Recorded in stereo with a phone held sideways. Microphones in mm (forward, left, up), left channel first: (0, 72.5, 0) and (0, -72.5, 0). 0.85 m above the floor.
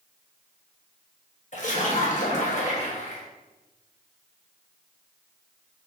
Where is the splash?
55° left (ahead or behind), 0.8 m.